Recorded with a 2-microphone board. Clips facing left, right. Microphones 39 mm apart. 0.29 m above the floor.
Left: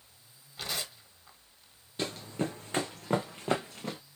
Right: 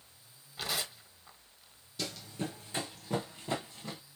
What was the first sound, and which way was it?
Tearing paper, 5° right (ahead or behind).